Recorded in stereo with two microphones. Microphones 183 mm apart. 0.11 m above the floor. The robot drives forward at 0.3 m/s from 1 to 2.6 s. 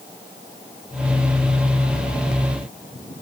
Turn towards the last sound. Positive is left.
No sound to turn to.